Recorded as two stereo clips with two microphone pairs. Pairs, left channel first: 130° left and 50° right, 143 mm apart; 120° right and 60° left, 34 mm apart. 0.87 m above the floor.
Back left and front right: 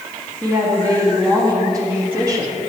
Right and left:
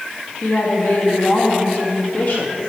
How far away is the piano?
No piano in this recording.